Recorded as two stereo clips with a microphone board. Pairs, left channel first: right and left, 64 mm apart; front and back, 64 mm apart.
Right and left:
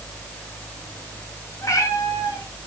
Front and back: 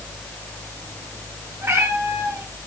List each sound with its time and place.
1.6 s a cat meowing: 130° right, 5.5 m